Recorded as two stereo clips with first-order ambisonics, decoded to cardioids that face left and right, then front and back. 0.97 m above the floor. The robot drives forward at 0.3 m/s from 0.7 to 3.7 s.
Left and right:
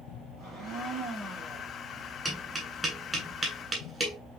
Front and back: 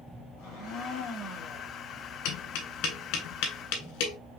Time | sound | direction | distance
0.4 | a blender | 40° right | 4 m
2.2 | tapping | 15° right | 2.5 m